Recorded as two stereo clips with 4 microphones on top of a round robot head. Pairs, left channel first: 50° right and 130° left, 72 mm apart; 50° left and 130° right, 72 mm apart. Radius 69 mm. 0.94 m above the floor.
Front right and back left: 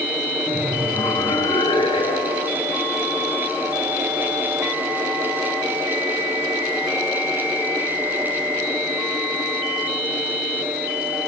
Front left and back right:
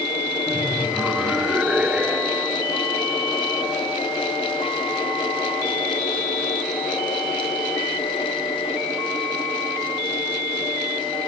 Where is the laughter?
55° right, 2 m.